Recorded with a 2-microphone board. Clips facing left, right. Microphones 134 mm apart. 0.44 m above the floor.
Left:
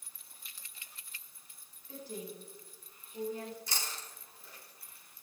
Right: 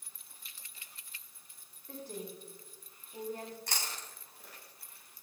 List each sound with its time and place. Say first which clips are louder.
1.9 s a woman speaking: even; 60° right (ahead or behind), 5 m
3.7 s chewing: right 1 dB; 70° right (ahead or behind), 3 m